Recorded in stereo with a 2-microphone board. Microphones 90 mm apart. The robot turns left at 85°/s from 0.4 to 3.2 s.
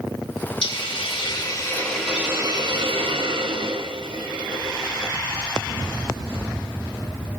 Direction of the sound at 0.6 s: 120° left.